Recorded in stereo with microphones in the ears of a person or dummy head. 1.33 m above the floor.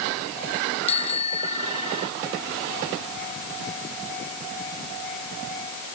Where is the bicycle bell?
30° left (ahead or behind).